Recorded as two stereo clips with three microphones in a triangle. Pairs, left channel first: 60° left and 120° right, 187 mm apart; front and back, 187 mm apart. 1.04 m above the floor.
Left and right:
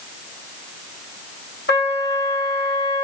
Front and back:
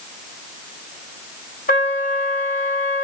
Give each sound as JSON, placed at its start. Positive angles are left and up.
{"t": 1.7, "sound": "a trumpet", "azimuth_deg": 40, "distance_m": 2.5}